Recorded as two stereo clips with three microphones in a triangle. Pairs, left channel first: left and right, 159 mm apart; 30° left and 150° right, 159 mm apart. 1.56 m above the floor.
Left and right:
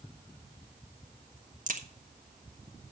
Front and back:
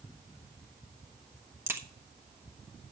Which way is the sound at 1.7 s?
75° right.